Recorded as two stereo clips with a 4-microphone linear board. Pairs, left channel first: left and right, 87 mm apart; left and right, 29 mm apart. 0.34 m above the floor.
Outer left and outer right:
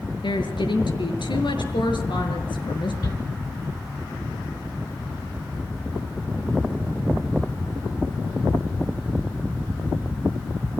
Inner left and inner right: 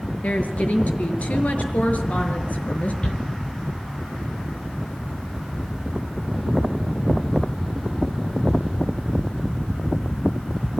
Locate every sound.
0.2 s a woman speaking: 80° left, 5.5 m
3.0 s a shout: 45° left (ahead or behind), 4.5 m